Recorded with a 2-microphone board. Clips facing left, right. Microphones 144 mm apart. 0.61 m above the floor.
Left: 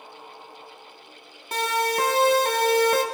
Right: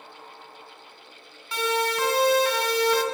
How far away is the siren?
About 5.5 m.